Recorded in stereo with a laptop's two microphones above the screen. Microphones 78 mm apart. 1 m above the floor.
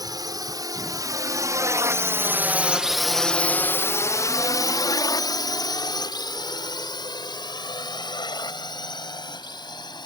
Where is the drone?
50° right (ahead or behind); by 10.1 s 60° left (ahead or behind).